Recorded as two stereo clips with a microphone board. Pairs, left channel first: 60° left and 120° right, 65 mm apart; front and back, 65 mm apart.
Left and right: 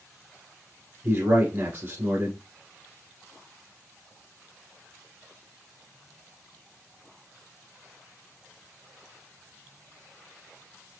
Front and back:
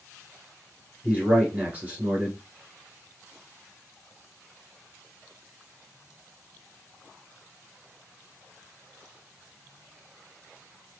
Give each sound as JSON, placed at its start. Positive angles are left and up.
{"t": 1.0, "sound": "a man speaking", "azimuth_deg": -125, "distance_m": 1.4}